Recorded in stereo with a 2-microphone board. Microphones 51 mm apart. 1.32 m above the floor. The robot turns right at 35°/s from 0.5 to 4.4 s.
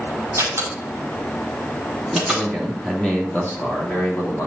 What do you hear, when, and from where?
0.4 s a door slam: 65° right (ahead or behind), 4.5 m; by 2.5 s centre (ahead or behind), 4.5 m
2.1 s a man speaking: 10° right, 2.5 m; by 4.5 s 70° left, 2.5 m